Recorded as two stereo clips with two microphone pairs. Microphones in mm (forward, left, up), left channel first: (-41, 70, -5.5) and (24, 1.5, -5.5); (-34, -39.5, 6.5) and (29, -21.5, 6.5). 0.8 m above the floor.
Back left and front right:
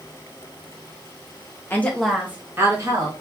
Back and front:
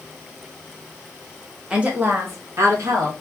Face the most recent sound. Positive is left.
turn(degrees=-5)